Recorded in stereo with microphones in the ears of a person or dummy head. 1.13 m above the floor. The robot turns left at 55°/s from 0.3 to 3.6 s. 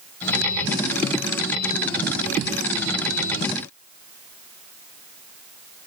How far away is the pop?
I don't hear a pop.